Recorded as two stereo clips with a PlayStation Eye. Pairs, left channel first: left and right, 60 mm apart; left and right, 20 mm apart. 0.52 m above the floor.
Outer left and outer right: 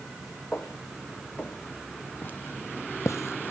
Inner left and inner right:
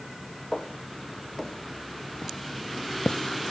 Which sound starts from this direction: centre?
Footsteps, at 0.5 s.